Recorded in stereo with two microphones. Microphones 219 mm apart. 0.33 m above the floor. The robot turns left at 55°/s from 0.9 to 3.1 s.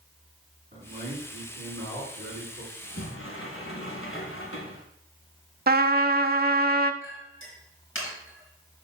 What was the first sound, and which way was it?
A man speaking, 30° right.